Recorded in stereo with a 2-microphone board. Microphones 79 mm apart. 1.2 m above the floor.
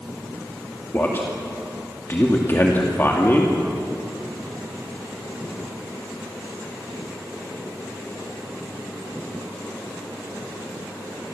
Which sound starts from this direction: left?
A man speaking, at 0.9 s.